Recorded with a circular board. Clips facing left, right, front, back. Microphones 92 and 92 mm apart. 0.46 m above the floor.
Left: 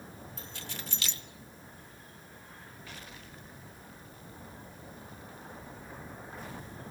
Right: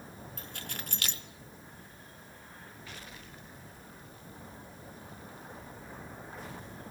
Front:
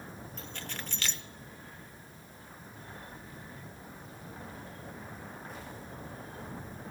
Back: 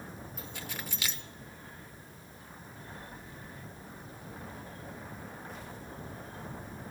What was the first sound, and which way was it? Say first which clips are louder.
Keys jangling: right 2 dB, even; 100° right.